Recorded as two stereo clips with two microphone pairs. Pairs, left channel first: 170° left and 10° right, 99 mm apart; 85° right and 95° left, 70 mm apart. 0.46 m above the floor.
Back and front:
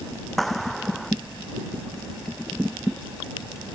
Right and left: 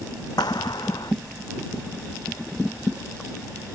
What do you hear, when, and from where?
0.4 s a clap: 105° right